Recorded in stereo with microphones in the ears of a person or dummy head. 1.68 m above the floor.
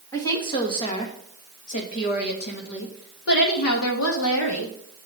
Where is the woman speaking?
15° left (ahead or behind), 3 m; by 4.8 s 80° left, 3 m.